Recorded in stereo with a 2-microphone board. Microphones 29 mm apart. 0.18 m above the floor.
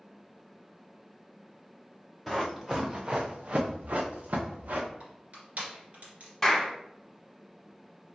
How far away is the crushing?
About 2 m.